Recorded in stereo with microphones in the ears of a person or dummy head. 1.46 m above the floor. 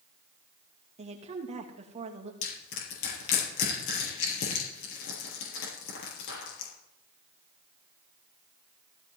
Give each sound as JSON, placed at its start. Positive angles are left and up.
{"t": 1.0, "sound": "a woman speaking", "side_deg": -40, "distance_m": 2.5}
{"t": 2.4, "sound": "crushing", "side_deg": 80, "distance_m": 6.5}